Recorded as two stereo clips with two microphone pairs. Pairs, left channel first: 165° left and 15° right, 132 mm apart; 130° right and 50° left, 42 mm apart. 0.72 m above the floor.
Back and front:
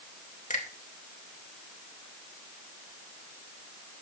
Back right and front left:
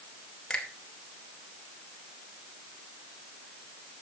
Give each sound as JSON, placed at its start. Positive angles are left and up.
{"t": 0.5, "sound": "a finger snap", "azimuth_deg": 155, "distance_m": 3.0}